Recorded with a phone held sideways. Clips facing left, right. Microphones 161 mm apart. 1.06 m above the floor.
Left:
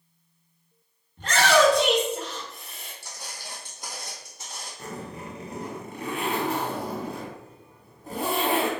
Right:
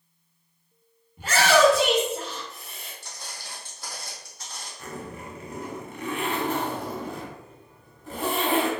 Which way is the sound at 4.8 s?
35° left (ahead or behind).